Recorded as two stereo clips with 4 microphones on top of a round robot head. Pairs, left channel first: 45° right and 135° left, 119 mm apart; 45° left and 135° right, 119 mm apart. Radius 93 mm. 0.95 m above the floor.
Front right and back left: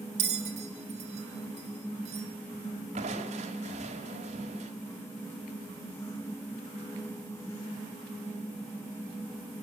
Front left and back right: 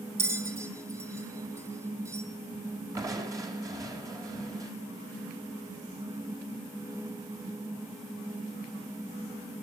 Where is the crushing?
165° left, 5 m.